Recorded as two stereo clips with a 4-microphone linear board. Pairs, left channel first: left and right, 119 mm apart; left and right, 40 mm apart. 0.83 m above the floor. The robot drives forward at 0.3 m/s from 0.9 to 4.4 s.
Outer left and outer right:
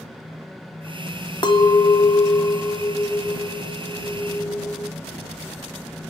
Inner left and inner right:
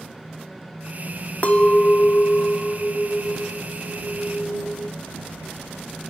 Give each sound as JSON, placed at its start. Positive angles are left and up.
{"t": 1.4, "sound": "a clink", "side_deg": 40, "distance_m": 0.5}